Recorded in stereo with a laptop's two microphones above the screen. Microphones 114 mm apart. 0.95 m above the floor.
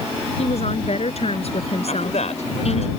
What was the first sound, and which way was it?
A woman speaking, 70° left (ahead or behind).